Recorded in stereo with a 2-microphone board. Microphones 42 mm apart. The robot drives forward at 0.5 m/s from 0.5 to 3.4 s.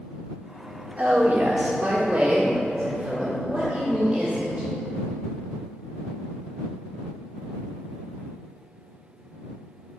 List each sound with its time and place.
1.0 s a woman speaking: 35° right (ahead or behind), 0.9 m; by 4.7 s 20° right (ahead or behind), 1.7 m